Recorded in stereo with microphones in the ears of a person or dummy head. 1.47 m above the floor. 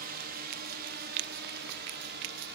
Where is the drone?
50° right (ahead or behind); by 2.5 s 60° right (ahead or behind).